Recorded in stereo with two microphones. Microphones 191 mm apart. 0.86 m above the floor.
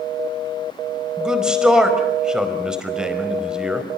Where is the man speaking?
5° right (ahead or behind), 4.5 m.